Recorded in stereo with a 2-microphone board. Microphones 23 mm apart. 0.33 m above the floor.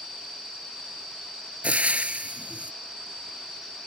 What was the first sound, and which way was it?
Frying, 80° right.